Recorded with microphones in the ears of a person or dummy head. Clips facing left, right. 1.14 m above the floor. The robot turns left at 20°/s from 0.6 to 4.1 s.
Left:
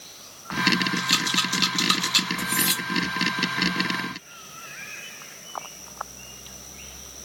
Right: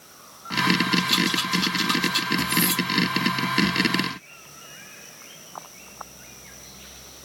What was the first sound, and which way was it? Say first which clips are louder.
A rattle: right 5 dB; 10° left (ahead or behind).